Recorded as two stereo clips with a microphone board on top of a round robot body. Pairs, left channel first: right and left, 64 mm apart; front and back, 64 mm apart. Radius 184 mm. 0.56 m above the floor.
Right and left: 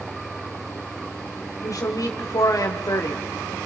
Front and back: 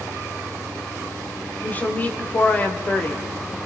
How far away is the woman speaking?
About 2.5 m.